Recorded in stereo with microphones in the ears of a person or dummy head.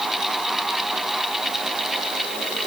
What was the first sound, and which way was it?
Only background noise.